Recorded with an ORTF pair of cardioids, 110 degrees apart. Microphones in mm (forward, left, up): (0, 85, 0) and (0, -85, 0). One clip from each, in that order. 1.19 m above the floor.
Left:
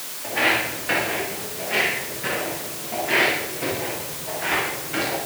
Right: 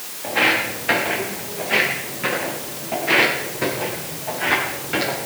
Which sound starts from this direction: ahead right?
Footsteps, at 0.2 s.